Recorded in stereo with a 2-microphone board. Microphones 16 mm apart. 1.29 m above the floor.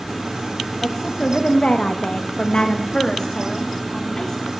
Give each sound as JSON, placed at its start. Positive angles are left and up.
{"t": 0.8, "sound": "a woman speaking", "side_deg": 50, "distance_m": 1.4}